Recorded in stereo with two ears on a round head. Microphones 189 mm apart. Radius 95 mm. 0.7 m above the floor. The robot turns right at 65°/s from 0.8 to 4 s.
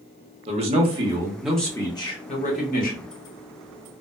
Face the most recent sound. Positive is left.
turn(degrees=160)